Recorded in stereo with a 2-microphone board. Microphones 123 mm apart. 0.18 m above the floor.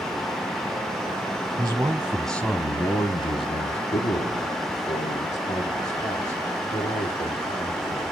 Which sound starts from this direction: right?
A man speaking, at 1.6 s.